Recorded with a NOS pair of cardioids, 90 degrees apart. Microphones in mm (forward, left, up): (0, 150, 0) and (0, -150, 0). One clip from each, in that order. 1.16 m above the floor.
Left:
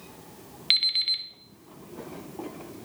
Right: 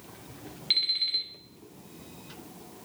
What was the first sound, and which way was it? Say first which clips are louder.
An alarm clock: left 3 dB; 30° left.